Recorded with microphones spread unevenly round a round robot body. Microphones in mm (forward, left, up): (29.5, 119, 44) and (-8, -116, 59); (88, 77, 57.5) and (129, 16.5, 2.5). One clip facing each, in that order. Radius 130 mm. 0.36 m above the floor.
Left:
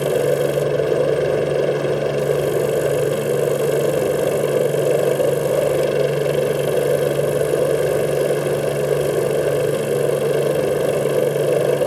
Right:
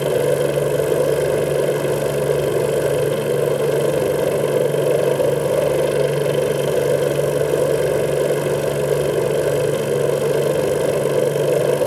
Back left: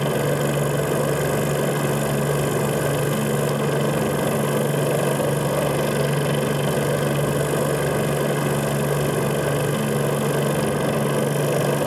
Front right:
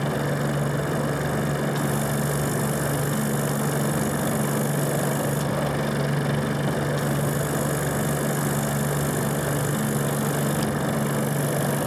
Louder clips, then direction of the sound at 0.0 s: Even, back left 4 dB; 165° left.